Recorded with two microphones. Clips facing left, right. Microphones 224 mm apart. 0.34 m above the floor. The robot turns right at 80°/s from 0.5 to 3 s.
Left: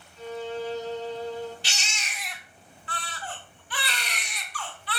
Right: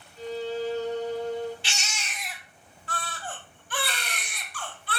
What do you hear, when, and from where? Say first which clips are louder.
0.2 s a violin: right 2 dB; 145° right, 1.1 m; by 1.5 s 65° right, 1.1 m
1.6 s a baby crying: right 1 dB; 130° left, 0.7 m; by 5.0 s 120° right, 0.7 m